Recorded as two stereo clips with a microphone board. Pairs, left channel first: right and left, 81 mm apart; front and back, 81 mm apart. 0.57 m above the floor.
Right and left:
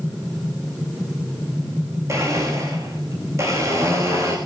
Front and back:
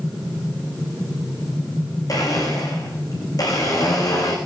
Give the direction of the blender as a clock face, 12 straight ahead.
11 o'clock.